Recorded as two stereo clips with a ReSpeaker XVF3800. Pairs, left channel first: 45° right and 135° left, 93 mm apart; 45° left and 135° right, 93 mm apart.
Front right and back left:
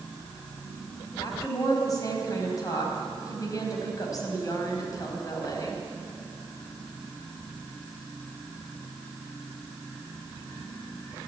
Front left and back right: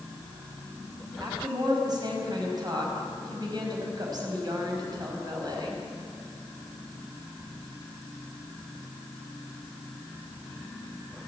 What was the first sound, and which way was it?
A woman speaking, 95° right.